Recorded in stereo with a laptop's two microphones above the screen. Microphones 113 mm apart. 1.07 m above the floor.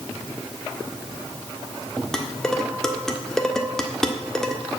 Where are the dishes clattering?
5° left (ahead or behind), 1.5 m.